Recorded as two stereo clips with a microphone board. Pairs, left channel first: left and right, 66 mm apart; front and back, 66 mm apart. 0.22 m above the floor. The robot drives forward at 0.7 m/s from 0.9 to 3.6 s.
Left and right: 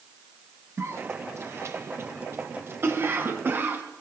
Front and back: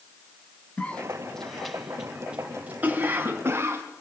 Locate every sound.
0.8 s a cough: 65° right, 1.8 m; by 3.8 s 140° right, 2 m